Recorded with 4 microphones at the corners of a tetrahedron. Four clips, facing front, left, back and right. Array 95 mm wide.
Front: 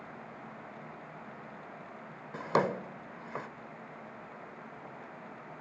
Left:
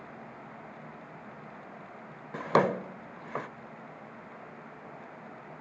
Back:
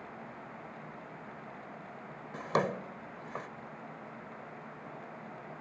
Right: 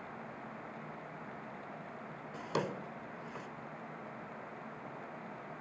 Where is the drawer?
80° left.